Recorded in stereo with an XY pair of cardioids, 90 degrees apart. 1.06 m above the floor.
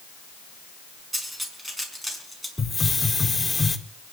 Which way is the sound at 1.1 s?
15° right.